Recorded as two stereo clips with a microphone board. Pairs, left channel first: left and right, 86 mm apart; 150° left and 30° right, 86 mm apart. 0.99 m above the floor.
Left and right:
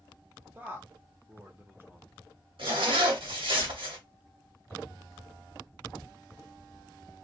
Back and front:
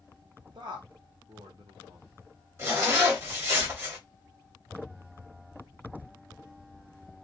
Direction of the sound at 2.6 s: 90° right.